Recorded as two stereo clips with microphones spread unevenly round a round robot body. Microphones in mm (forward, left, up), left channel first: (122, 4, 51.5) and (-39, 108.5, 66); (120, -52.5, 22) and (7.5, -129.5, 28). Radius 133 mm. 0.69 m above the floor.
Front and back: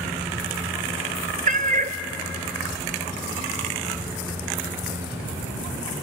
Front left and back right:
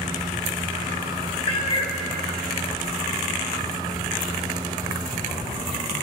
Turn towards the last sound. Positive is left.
turn(degrees=95)